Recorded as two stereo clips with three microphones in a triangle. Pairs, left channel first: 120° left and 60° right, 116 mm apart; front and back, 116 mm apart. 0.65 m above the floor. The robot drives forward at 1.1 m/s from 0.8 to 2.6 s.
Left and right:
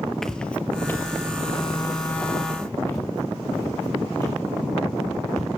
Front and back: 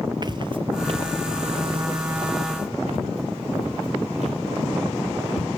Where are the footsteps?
160° right, 0.8 m; by 5.5 s 175° right, 5.5 m.